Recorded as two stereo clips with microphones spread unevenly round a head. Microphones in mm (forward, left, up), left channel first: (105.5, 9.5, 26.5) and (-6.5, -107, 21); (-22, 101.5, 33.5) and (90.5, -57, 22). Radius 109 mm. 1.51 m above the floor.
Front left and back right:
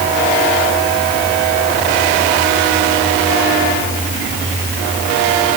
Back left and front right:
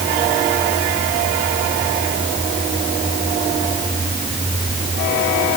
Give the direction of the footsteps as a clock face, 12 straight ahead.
I don't hear footsteps.